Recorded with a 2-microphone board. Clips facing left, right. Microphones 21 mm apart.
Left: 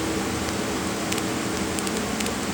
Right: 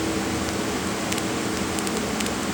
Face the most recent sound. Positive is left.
No sound to turn to.